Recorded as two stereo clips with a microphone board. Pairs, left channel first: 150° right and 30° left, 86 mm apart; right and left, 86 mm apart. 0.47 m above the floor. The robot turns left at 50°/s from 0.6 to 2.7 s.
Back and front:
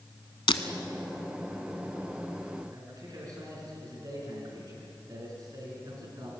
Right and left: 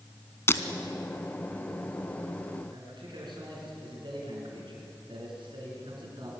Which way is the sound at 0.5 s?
150° right.